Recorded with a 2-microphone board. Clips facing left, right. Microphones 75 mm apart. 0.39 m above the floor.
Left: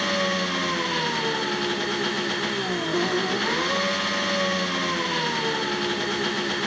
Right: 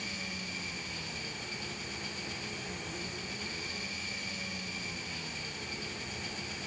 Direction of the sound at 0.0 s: 70° left (ahead or behind).